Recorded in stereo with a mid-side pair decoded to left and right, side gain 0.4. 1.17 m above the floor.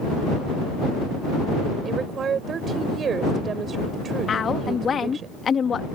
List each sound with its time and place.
1.9 s a woman speaking: 55° right
4.3 s a woman speaking: 50° left